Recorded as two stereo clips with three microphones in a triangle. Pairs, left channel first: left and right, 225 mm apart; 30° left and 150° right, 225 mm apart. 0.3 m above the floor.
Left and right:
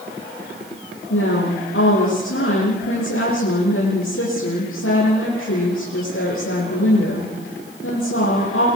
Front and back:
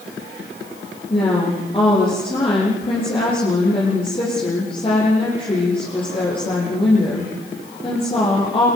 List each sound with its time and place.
1.1 s a woman speaking: 95° left, 9.5 m